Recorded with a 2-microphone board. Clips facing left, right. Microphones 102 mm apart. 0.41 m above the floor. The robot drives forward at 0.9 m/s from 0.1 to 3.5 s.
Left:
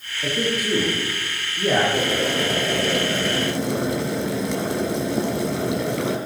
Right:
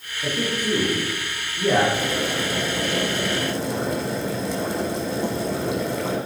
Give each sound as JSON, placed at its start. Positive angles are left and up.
{"t": 0.2, "sound": "a man speaking", "side_deg": 15, "distance_m": 6.0}
{"t": 1.9, "sound": "boiling", "side_deg": 65, "distance_m": 5.5}